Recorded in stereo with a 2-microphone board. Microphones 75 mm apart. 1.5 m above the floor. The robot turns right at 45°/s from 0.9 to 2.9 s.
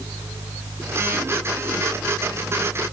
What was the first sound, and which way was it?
Only background noise.